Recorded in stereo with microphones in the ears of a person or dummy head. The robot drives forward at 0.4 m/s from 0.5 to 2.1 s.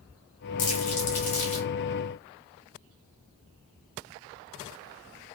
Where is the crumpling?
40° left (ahead or behind), 1.0 m; by 1.7 s 30° left (ahead or behind), 1.3 m.